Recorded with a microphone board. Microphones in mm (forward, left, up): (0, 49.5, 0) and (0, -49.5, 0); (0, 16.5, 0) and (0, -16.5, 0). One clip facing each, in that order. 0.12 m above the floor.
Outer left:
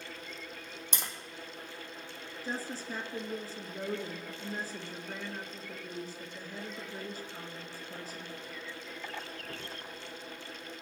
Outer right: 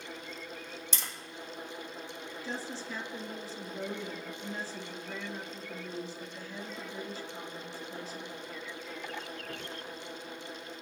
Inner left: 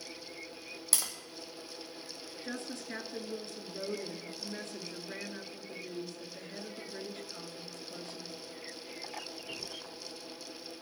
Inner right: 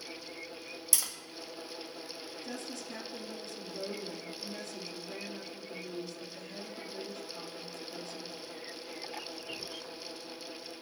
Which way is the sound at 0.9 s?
55° left (ahead or behind).